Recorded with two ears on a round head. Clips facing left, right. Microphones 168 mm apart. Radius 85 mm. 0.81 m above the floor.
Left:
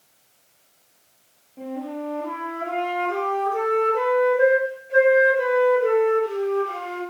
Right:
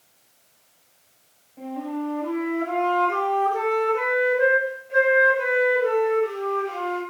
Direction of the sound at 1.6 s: 20° left (ahead or behind).